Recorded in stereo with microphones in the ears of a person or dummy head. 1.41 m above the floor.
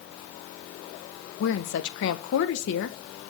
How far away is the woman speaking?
About 1.3 m.